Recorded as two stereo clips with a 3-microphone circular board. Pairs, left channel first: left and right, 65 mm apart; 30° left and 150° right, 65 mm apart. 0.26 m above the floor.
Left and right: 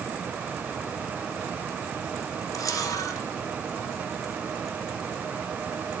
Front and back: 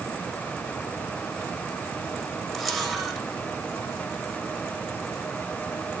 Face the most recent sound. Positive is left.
turn(degrees=115)